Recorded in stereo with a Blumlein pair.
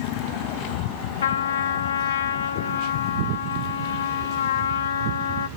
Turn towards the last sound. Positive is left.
turn(degrees=65)